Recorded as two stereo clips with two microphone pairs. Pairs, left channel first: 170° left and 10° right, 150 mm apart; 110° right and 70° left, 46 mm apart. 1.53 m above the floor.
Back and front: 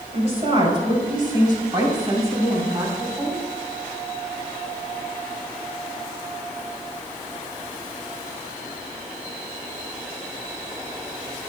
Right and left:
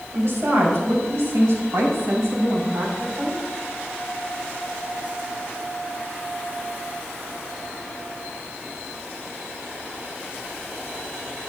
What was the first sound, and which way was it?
A woman speaking, 40° left.